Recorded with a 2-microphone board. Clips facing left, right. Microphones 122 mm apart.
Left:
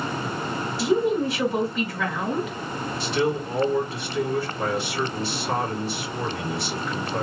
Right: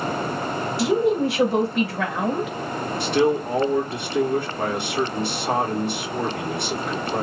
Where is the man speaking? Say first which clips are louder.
Right 5 dB; 65° right (ahead or behind), 1.8 m.